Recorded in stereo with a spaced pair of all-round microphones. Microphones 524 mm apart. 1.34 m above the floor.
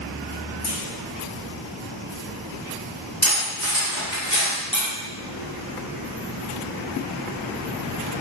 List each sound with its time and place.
0.6 s a clunk: 45° left (ahead or behind), 2 m
3.2 s cutlery clinking: 30° left (ahead or behind), 1.9 m
4.7 s tapping: 65° left (ahead or behind), 2.5 m